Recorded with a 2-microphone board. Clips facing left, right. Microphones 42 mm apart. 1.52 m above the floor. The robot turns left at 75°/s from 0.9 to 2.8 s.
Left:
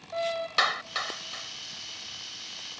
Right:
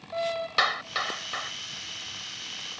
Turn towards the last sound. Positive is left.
turn(degrees=-145)